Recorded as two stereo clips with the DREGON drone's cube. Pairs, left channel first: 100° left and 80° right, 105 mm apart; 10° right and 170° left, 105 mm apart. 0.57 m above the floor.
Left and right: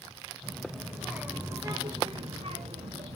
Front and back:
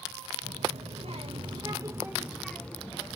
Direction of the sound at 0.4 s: 175° right.